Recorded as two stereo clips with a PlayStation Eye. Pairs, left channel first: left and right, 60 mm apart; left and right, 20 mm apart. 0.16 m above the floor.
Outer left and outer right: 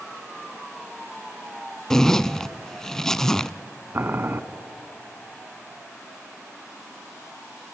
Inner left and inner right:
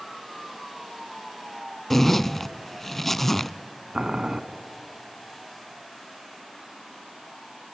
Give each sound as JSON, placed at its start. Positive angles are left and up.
{"t": 1.9, "sound": "a zipper", "side_deg": 10, "distance_m": 0.5}
{"t": 3.9, "sound": "boiling", "side_deg": -35, "distance_m": 0.8}